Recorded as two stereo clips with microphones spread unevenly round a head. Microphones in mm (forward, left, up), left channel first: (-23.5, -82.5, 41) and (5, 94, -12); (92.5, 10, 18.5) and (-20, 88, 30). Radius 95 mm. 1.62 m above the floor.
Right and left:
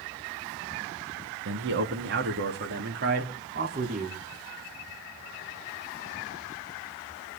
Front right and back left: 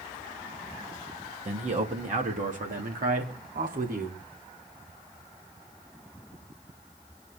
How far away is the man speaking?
About 3 m.